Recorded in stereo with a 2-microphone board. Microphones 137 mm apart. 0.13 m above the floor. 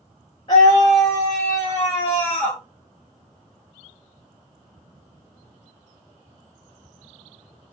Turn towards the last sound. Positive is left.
turn(degrees=10)  # may be behind; listen again after turning